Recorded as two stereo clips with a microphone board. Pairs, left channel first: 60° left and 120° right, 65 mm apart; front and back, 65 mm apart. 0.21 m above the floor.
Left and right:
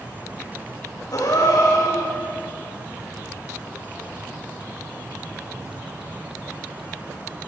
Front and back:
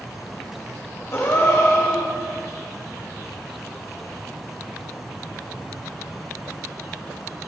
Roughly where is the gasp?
Ahead left.